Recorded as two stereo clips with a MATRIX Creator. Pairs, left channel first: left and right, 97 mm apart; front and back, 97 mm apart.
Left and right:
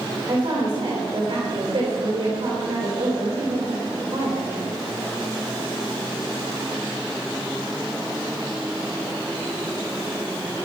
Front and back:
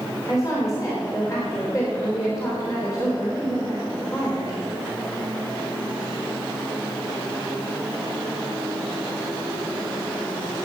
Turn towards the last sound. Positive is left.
turn(degrees=-55)